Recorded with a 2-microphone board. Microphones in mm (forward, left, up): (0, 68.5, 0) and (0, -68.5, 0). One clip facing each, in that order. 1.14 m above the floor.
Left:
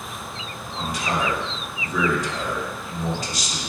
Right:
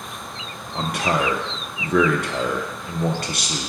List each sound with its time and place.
0.8 s a man speaking: 60° right (ahead or behind), 0.6 m